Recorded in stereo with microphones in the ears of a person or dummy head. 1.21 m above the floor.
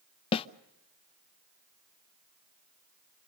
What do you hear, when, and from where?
0.3 s a snare drum: 30° left (ahead or behind), 0.5 m